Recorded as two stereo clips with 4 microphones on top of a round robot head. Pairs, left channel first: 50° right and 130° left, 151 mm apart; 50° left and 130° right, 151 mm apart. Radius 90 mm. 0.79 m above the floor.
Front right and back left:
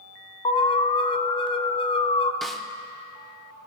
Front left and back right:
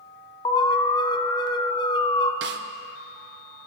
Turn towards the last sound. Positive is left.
turn(degrees=-140)